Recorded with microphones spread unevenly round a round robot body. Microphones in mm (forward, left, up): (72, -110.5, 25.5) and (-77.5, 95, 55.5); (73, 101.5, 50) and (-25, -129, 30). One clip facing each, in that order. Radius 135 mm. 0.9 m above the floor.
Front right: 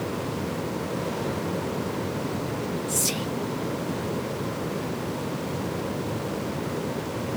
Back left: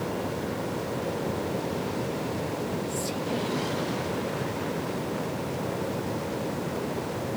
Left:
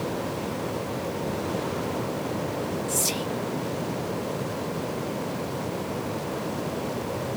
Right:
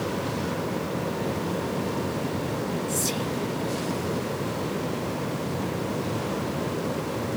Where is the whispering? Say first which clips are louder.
Front right 1 dB, right 1 dB; 15° right.